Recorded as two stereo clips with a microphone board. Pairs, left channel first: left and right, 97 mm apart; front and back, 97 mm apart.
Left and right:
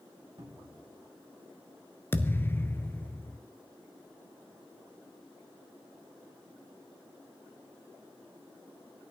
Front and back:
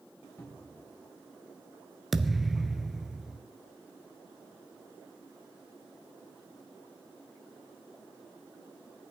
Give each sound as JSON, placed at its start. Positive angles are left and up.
{"t": 0.4, "sound": "a cupboard door", "azimuth_deg": -65, "distance_m": 4.0}
{"t": 2.1, "sound": "a thud", "azimuth_deg": 95, "distance_m": 0.8}